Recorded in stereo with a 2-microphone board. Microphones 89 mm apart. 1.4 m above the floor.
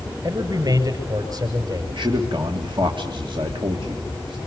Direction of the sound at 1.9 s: 65° right (ahead or behind).